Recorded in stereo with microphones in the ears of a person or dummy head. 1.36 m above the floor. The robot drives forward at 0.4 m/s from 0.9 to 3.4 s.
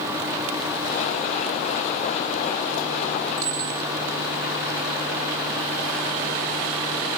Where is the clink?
25° right (ahead or behind), 3.5 m.